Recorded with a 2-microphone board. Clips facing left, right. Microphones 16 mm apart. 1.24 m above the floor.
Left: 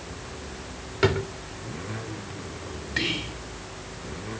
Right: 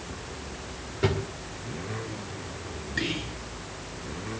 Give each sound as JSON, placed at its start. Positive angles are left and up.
{"t": 1.0, "sound": "a drawer", "side_deg": 50, "distance_m": 2.0}
{"t": 3.0, "sound": "whispering", "side_deg": 85, "distance_m": 5.5}